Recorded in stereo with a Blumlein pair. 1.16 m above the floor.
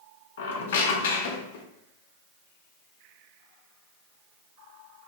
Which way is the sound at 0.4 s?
60° left.